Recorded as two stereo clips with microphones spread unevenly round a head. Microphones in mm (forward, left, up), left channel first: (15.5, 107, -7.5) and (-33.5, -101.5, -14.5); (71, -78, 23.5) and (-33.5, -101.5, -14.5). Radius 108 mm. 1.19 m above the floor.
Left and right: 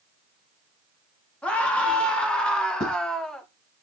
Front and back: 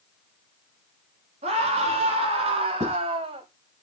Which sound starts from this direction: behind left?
Writing, at 2.8 s.